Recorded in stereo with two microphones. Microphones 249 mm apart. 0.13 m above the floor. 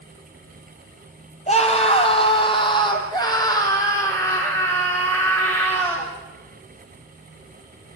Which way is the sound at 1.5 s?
25° left (ahead or behind).